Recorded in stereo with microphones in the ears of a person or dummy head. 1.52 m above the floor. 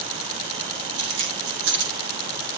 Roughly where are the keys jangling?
Right.